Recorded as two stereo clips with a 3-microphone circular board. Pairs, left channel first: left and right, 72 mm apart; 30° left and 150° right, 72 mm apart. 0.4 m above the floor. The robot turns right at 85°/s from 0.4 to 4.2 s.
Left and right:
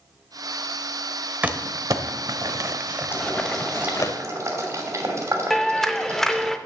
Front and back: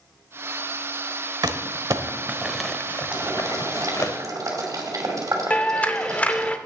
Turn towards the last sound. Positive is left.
turn(degrees=20)